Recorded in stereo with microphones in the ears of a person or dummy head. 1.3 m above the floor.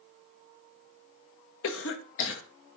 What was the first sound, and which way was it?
A cough, 75° left (ahead or behind).